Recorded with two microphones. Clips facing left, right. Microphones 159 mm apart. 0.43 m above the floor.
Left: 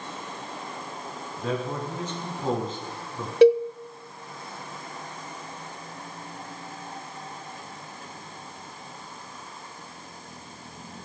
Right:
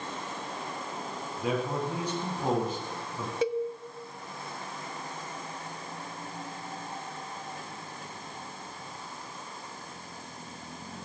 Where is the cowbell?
80° left, 0.6 m.